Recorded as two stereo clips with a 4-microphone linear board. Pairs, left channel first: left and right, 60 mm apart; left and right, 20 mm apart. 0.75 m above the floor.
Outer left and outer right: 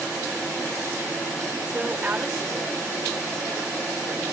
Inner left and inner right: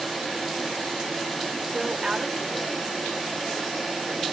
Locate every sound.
1.7 s a woman speaking: 25° right (ahead or behind), 3 m